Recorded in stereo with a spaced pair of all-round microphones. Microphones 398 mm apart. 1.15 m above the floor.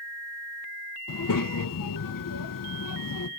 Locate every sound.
1.1 s a child speaking: 55° left (ahead or behind), 0.5 m